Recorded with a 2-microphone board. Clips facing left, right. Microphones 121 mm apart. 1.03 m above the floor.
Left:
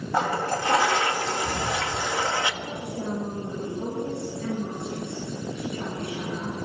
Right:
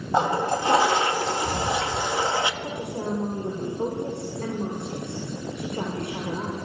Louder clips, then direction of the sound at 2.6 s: Right 2 dB; 60° right (ahead or behind).